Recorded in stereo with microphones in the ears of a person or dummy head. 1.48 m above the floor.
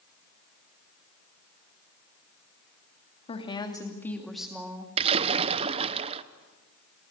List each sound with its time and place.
3.3 s a woman speaking: 30° left (ahead or behind), 3 m; by 4.9 s 10° right (ahead or behind), 3 m
5.0 s a splash: 35° right (ahead or behind), 0.8 m